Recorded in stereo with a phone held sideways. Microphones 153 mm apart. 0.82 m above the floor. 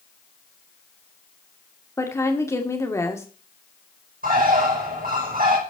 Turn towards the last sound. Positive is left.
turn(degrees=-75)  # may be behind; listen again after turning